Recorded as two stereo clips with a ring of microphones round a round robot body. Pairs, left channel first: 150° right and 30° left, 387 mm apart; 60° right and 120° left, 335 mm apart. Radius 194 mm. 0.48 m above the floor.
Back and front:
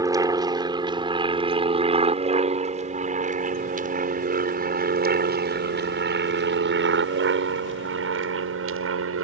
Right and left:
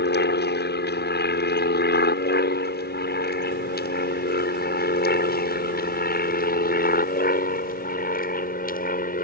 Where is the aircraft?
45° right; by 9.2 s 10° right.